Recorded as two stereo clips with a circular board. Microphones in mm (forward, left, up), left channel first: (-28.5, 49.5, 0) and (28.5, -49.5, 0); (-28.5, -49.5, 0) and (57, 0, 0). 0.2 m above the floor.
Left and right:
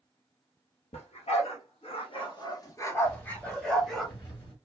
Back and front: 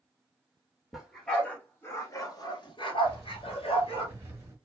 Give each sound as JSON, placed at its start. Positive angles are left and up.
{"t": 0.9, "sound": "a dog barking", "azimuth_deg": 120, "distance_m": 1.2}
{"t": 3.0, "sound": "keys jangling", "azimuth_deg": 80, "distance_m": 1.4}